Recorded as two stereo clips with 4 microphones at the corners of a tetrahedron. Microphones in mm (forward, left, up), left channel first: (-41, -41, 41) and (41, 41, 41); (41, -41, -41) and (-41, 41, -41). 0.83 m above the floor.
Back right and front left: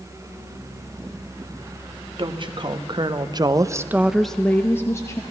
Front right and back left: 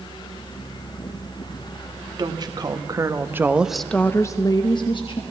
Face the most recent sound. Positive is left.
turn(degrees=-75)